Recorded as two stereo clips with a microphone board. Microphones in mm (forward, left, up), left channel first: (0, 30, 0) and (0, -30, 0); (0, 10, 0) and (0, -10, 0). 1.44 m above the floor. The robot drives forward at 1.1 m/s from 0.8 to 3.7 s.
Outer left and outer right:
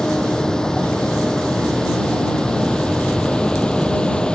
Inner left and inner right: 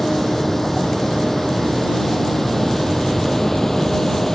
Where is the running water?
15° left (ahead or behind).